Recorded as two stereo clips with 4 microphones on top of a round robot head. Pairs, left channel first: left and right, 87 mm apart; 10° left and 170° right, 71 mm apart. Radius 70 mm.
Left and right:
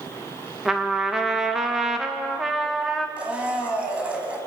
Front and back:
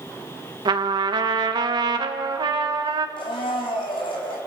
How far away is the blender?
About 4 m.